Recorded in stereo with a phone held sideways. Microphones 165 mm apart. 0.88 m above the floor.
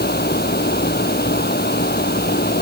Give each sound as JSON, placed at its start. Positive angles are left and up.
{"t": 0.0, "sound": "a fan", "side_deg": 75}